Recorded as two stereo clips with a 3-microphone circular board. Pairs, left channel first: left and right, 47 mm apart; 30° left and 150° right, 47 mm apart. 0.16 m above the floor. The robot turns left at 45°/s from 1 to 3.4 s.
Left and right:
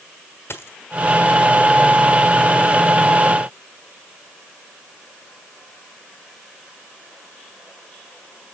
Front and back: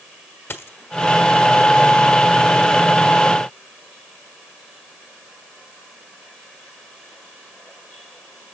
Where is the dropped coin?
60° left, 1.3 m.